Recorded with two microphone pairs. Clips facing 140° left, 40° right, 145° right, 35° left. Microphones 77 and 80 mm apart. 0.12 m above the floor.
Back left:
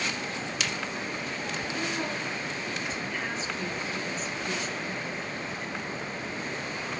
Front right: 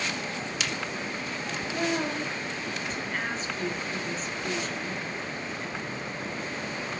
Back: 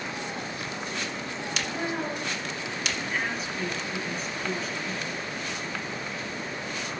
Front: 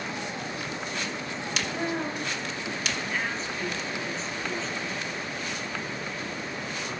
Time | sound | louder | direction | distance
1.6 | a woman speaking | front right 5 dB, front 1 dB | 70° right | 1.7 m